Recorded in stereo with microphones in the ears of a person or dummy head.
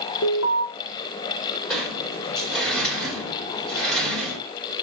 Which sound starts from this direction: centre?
A sliding door, at 1.7 s.